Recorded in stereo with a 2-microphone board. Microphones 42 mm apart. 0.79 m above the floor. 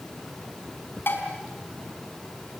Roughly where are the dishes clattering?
Left.